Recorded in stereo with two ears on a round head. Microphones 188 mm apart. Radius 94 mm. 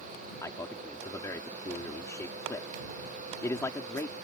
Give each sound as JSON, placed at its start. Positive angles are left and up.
{"t": 0.4, "sound": "a man speaking", "side_deg": 15}